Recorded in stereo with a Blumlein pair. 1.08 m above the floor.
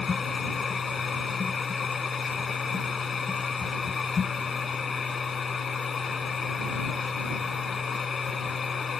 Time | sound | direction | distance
0.0 | a machine running | 15° left | ?